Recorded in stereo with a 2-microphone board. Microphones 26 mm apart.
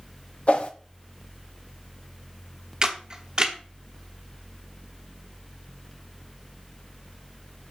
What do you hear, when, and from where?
0.5 s a whoosh: 55° left (ahead or behind), 0.8 m
2.8 s a camera shutter: 30° right (ahead or behind), 1.1 m